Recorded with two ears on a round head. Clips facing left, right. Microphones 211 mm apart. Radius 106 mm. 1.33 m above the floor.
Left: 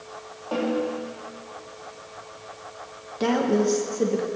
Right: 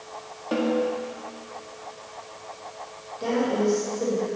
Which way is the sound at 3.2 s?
75° left (ahead or behind).